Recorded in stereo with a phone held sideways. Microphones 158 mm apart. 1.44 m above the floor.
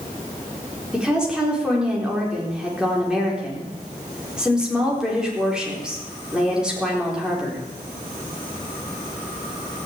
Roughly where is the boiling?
I don't hear boiling.